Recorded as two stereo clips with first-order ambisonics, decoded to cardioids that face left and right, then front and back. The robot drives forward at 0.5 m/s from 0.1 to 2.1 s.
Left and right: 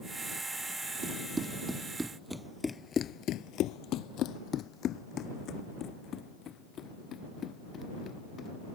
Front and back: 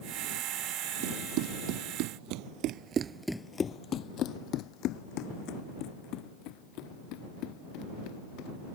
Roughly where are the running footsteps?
Behind.